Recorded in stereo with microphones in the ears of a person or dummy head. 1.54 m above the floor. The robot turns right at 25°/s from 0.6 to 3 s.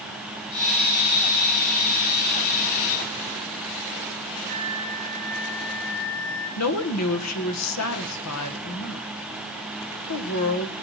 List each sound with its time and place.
4.5 s a flute: 25° left (ahead or behind), 6 m
6.6 s a woman speaking: 80° left, 1.7 m